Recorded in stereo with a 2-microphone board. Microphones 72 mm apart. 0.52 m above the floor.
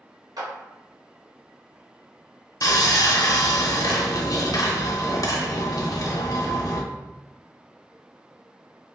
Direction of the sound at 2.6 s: 55° left (ahead or behind).